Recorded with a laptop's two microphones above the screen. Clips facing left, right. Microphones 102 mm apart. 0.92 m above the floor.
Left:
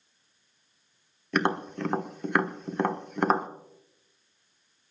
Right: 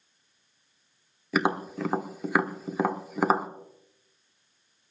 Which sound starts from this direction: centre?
Tapping, at 1.3 s.